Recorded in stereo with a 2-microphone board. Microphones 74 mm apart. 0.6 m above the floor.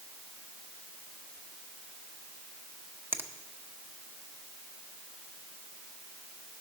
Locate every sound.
3.1 s a finger snap: 30° right (ahead or behind), 0.8 m